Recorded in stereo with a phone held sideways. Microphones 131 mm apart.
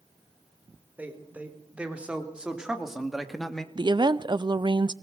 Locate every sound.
1.0 s a man speaking: 10° right (ahead or behind), 4 m; by 3.6 s 5° left (ahead or behind), 1.7 m
3.8 s a woman speaking: 35° right (ahead or behind), 0.6 m